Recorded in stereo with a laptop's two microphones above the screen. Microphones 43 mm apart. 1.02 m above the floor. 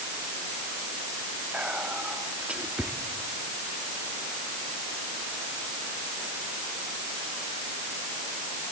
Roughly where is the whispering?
Right.